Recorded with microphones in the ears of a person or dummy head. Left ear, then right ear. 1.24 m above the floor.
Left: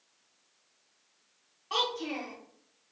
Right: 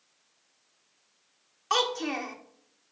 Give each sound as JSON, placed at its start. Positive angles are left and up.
{"t": 1.7, "sound": "a child speaking", "side_deg": -50, "distance_m": 0.7}